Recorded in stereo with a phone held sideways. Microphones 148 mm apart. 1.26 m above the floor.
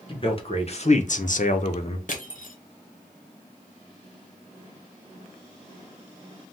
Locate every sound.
0.1 s a man speaking: 35° left (ahead or behind), 1.1 m
2.1 s crushing: 60° left (ahead or behind), 0.7 m